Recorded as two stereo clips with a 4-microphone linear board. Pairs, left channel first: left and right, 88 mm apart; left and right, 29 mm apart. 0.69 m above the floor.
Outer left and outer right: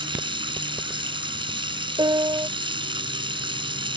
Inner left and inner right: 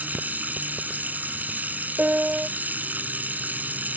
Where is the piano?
65° right (ahead or behind).